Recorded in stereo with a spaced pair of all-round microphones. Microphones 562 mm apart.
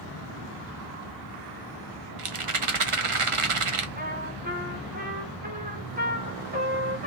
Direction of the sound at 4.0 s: 15° right (ahead or behind).